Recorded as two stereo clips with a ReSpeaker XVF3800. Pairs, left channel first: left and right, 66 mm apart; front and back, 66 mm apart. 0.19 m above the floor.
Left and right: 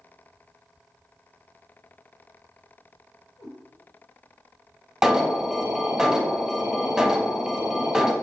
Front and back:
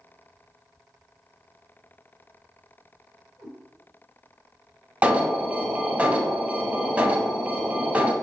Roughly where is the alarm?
Behind.